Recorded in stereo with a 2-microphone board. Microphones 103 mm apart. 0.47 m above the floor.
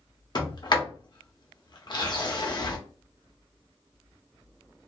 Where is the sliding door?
40° left (ahead or behind), 0.7 m.